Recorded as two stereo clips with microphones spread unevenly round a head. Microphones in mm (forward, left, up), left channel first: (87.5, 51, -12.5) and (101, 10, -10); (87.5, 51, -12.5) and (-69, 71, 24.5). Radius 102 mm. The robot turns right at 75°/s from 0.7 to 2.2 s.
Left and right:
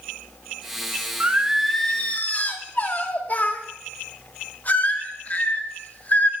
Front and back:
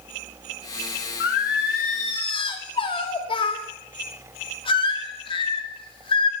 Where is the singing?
20° right, 0.7 m; by 6.3 s 55° left, 0.7 m.